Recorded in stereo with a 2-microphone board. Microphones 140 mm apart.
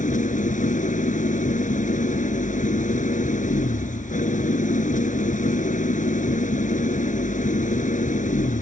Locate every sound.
0.0 s an engine running: 65° left (ahead or behind)